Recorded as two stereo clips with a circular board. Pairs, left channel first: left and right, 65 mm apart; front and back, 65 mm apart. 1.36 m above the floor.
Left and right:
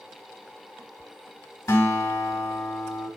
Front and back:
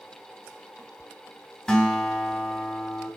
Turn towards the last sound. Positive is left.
turn(degrees=80)